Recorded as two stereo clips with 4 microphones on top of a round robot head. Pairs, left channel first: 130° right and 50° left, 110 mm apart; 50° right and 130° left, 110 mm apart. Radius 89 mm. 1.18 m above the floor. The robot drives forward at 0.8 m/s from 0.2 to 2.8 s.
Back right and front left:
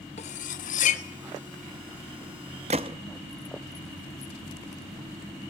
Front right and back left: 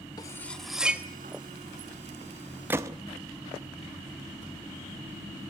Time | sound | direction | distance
0.2 | cutlery clinking | 105° right | 0.6 m
2.7 | a gunshot | 60° left | 0.6 m